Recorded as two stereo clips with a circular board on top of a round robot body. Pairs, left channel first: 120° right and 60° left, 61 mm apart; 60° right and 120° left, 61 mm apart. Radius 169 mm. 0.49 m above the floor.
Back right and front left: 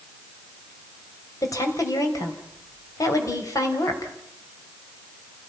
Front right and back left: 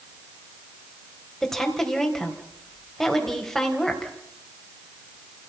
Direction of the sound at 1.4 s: 145° right.